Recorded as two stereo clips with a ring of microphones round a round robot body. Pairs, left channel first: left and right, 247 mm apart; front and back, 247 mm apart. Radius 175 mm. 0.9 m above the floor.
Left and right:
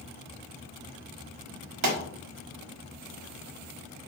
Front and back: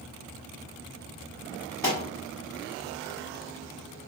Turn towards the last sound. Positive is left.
turn(degrees=-80)